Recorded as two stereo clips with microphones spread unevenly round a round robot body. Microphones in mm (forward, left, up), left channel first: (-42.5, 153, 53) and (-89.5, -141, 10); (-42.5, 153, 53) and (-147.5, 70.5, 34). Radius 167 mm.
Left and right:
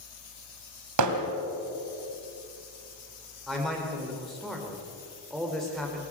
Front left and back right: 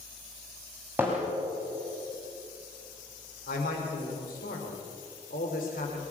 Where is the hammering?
55° right, 2.5 m.